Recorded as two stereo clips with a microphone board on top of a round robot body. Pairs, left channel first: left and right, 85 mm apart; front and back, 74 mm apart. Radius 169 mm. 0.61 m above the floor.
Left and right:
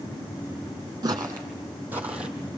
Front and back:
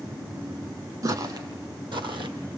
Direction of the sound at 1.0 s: 140° right.